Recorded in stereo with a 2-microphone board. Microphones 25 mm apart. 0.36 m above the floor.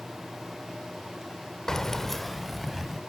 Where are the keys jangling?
20° left (ahead or behind), 0.6 m; by 3.0 s 5° right (ahead or behind), 1.7 m.